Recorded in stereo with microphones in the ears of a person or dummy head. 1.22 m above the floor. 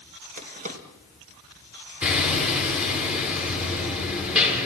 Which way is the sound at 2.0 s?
5° right (ahead or behind).